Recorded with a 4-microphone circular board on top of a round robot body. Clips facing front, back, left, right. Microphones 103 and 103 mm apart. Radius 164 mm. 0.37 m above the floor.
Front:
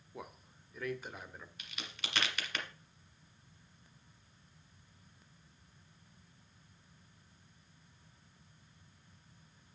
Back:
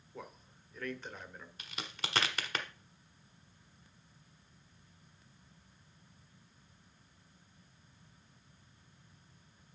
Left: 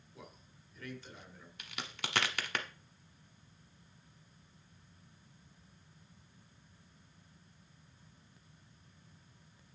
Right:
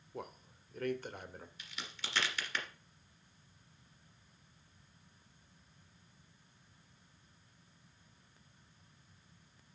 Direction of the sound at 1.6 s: 125° left.